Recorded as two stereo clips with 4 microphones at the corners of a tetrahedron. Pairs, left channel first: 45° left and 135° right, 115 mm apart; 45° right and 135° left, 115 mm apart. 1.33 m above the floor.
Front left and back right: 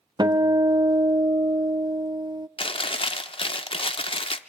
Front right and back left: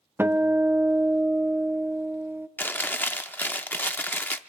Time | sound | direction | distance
0.2 | a guitar | 165° right | 0.6 m
2.6 | chewing | 25° left | 0.6 m